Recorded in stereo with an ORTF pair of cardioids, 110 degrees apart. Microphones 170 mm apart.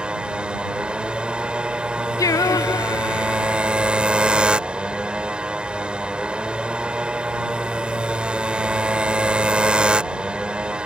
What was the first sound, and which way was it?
A motorcycle, 5° right.